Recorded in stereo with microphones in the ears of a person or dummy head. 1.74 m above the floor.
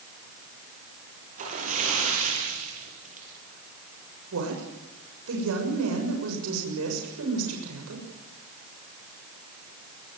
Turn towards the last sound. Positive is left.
turn(degrees=-85)